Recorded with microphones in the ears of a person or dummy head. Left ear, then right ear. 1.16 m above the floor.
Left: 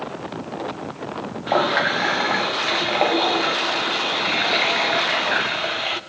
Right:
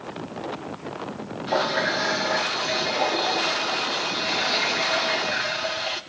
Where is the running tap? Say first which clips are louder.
Left 4 dB; 20° left (ahead or behind), 1.8 m.